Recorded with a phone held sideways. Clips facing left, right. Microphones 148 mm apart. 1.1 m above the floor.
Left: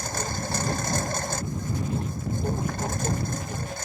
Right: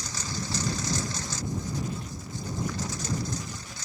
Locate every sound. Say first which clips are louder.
0.0 s a lawn mower: left 5 dB; 55° left (ahead or behind)